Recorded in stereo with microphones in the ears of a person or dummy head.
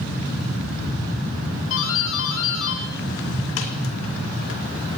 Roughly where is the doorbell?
Left.